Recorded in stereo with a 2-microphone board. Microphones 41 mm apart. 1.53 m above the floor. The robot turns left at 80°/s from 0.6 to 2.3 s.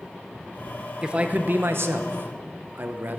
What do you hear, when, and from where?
1.0 s a man speaking: 20° right, 0.9 m; by 3.2 s 120° right, 0.9 m